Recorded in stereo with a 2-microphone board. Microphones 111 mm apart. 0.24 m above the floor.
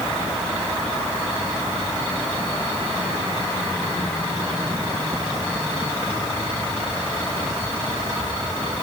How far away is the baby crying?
I don't hear a baby crying.